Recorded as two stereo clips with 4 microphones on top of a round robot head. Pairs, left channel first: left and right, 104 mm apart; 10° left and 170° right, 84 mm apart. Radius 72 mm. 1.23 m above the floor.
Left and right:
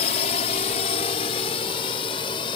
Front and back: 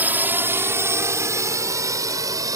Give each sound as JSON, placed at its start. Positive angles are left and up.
{"t": 0.0, "sound": "a drone", "azimuth_deg": 120}